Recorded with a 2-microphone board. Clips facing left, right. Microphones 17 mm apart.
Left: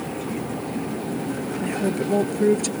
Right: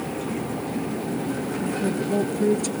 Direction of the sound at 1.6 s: 30° left (ahead or behind).